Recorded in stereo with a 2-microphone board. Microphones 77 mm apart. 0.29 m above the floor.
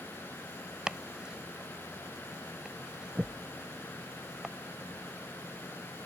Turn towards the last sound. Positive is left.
turn(degrees=-10)  # may be behind; listen again after turning